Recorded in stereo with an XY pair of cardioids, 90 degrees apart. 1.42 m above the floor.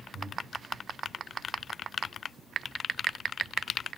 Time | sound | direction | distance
0.1 | breathing | 25° right | 3 m